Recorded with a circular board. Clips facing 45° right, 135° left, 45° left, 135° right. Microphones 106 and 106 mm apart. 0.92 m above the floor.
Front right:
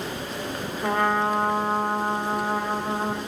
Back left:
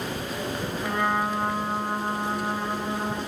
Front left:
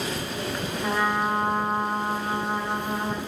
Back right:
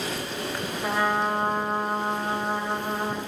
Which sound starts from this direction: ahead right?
A trumpet, at 0.8 s.